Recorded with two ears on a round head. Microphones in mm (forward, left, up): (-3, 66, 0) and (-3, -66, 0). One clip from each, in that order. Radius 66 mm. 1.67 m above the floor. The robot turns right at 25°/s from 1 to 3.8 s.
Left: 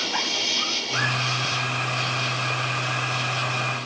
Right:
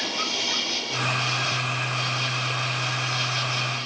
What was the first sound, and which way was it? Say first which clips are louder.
An insect: left 2 dB; 175° left.